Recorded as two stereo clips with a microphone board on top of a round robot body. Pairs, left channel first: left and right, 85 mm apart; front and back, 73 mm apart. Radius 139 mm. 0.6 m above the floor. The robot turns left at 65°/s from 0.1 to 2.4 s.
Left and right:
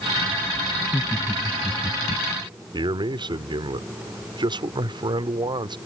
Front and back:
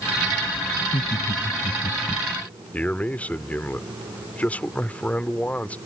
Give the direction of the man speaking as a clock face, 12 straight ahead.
2 o'clock.